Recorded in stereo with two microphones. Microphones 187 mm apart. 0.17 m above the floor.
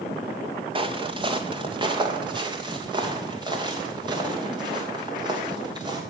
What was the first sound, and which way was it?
Footsteps, 25° right (ahead or behind).